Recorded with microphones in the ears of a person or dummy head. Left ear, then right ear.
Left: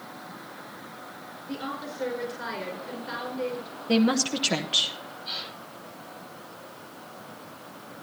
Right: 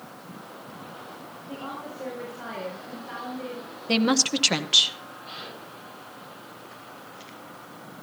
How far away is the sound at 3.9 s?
About 0.8 m.